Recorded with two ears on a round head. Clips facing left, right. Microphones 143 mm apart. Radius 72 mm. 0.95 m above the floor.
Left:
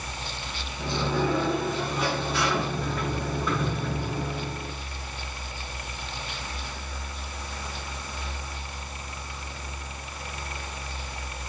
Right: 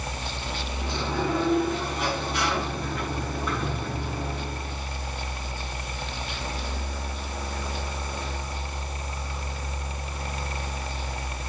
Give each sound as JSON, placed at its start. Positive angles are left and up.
{"t": 0.8, "sound": "a sliding door", "side_deg": 70, "distance_m": 6.5}